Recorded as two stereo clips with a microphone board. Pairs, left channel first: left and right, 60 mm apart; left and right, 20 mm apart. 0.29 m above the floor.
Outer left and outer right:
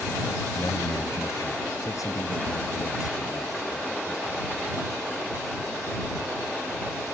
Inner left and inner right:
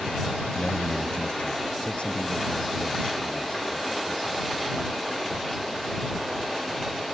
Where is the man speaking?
45° left (ahead or behind); by 4.5 s 80° left.